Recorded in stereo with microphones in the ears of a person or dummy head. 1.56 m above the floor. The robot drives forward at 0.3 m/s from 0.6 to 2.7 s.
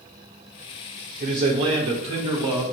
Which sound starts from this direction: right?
A man speaking, at 1.2 s.